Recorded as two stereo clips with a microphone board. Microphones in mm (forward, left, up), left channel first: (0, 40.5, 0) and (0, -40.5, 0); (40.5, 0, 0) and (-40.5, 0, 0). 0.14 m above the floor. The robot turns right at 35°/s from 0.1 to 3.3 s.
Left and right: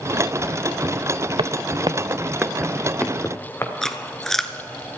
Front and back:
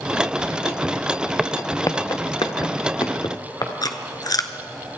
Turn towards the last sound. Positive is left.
turn(degrees=5)